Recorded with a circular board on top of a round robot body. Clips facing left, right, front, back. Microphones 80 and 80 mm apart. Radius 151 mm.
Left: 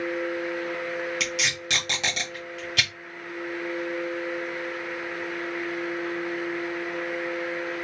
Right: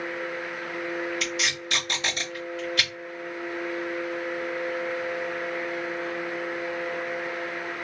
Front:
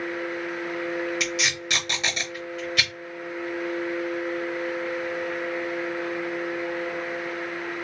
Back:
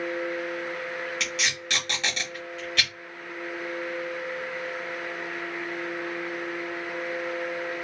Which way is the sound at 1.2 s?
80° left.